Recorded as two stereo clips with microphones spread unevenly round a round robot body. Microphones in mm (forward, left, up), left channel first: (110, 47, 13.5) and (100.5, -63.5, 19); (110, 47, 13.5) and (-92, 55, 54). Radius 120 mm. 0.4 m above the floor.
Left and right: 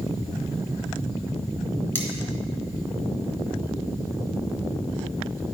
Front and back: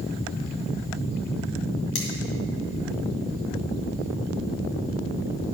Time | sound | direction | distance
1.9 | cutlery clinking | 15° left | 3 m